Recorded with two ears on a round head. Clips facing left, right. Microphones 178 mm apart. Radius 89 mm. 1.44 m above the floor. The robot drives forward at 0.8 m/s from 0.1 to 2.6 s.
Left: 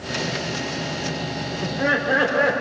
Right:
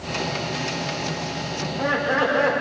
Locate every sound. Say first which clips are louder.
1.6 s laughter: left 1 dB; 20° left (ahead or behind), 5 m; by 2.5 s 15° left (ahead or behind), 5.5 m